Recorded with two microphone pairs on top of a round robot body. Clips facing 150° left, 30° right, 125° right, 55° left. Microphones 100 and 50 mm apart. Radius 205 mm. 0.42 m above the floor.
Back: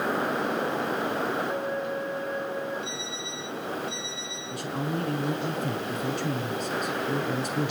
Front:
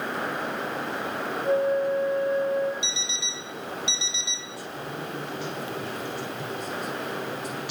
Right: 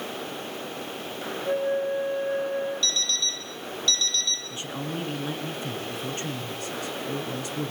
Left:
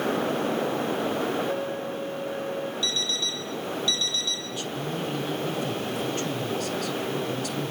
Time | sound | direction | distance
1.4 | a flute | 55° right | 10 m
2.8 | an alarm clock | 20° right | 6.5 m
4.5 | a man speaking | 175° left | 7 m